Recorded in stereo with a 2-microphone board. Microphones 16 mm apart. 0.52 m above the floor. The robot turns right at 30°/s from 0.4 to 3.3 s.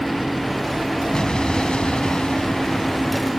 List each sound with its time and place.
1.1 s an explosion: 50° left; by 3.3 s 115° left